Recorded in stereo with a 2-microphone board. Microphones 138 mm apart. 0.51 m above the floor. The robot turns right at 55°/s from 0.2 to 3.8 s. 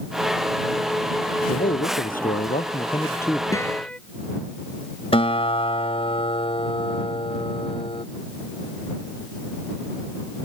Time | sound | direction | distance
1.5 | a man speaking | 65° left | ?
3.5 | a guitar | 25° left (ahead or behind) | ?
5.1 | a guitar | 40° left (ahead or behind) | ?